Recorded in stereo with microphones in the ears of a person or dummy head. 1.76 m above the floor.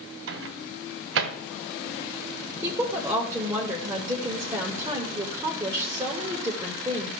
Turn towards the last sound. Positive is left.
turn(degrees=-15)  # may be behind; listen again after turning